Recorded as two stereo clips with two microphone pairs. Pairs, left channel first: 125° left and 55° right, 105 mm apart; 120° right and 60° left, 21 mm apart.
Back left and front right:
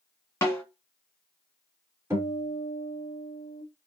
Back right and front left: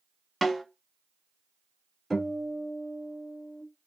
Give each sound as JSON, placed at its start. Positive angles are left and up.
{"t": 0.4, "sound": "a snare drum", "azimuth_deg": 155, "distance_m": 1.6}
{"t": 2.1, "sound": "a guitar", "azimuth_deg": -30, "distance_m": 1.8}